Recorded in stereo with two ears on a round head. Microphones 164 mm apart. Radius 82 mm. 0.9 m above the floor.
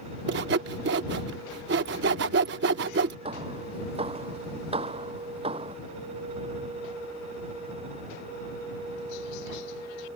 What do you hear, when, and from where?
0.3 s sawing: 60° right (ahead or behind)
3.2 s hammering: 30° right (ahead or behind)